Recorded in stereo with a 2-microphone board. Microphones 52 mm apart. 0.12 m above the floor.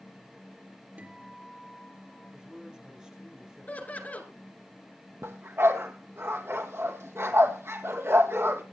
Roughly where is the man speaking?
Centre.